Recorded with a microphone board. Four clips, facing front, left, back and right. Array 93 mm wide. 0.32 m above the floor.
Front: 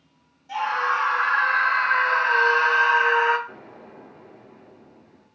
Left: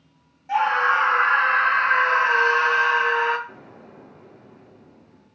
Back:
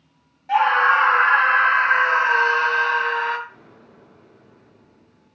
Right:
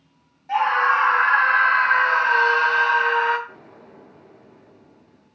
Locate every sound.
0.5 s a scream: 175° left, 2.5 m; by 3.4 s 25° left, 1.6 m
3.5 s an explosion: 20° left, 5 m